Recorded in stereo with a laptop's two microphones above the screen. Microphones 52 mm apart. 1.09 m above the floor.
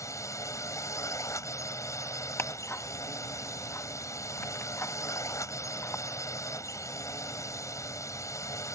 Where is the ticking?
50° left (ahead or behind).